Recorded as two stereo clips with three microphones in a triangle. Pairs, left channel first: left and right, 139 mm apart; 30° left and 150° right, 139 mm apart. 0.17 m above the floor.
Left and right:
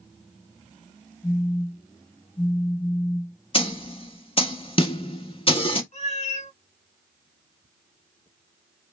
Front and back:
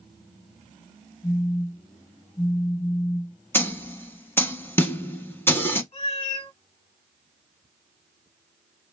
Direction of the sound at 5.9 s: 65° left.